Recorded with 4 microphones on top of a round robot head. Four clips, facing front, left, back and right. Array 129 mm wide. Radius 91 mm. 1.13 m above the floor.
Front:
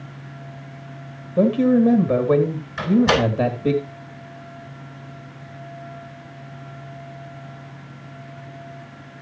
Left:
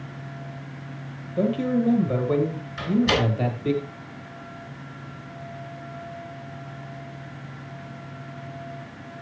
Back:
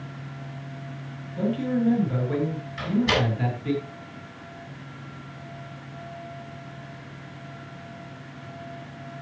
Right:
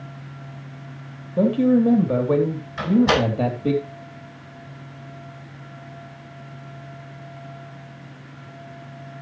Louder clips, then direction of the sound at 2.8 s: Right 4 dB, front 7 dB; 45° right.